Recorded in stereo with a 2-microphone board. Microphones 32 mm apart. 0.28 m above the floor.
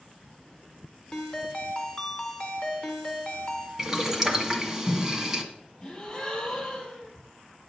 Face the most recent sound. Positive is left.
turn(degrees=30)  # may be behind; listen again after turning